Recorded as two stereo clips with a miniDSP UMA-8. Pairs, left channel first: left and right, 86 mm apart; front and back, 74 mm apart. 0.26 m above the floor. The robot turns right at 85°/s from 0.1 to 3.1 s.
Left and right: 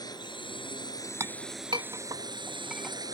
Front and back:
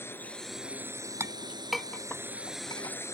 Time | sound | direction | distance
0.0 | a drone | 55° left | ?
1.2 | a clink | 135° right | ?